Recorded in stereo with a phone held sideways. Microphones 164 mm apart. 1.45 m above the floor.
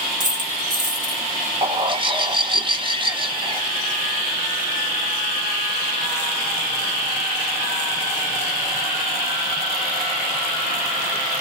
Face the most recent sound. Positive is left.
turn(degrees=-30)  # may be behind; listen again after turning